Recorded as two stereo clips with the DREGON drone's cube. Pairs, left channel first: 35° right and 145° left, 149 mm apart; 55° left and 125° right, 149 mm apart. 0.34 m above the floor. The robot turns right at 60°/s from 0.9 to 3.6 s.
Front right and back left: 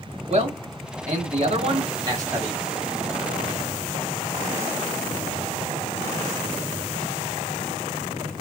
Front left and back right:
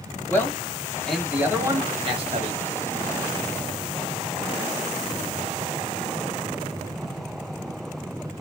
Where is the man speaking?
130° left, 1.6 m; by 2.6 s 130° right, 1.6 m.